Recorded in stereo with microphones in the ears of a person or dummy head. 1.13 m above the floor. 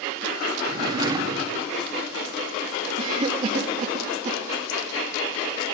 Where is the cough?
25° right (ahead or behind), 1.4 m.